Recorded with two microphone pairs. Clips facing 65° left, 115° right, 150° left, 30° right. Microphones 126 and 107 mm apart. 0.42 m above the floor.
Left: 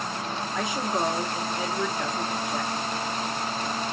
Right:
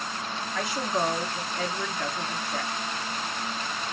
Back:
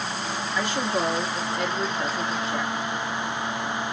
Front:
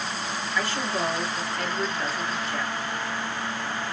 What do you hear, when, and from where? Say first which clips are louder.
0.6 s a woman speaking: even, back 2 dB; 110° left, 0.8 m